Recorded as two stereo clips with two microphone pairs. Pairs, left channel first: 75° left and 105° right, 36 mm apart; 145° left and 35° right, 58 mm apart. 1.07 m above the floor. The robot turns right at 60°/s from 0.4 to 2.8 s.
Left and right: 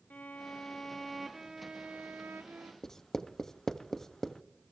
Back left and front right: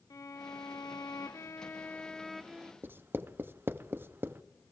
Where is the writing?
Straight ahead, 0.5 m.